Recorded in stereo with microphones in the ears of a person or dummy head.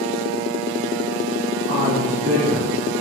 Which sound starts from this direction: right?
A woman speaking, at 1.7 s.